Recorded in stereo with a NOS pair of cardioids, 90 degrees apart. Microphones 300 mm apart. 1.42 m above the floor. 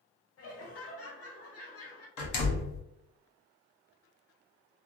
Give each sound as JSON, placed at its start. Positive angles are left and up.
{"t": 0.4, "sound": "laughter", "azimuth_deg": 55, "distance_m": 1.0}
{"t": 2.2, "sound": "a door slam", "azimuth_deg": 65, "distance_m": 0.9}